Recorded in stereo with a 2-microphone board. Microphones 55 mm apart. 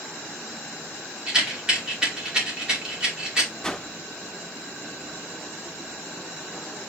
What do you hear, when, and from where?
1.3 s a rattle: 15° right (ahead or behind), 2.5 m
3.6 s a whoosh: 10° left (ahead or behind), 0.5 m